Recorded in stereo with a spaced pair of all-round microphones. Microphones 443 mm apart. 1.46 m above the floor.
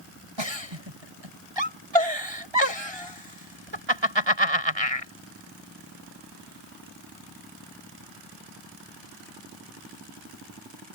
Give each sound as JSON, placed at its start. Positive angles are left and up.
{"t": 0.4, "sound": "a giggle", "side_deg": -85}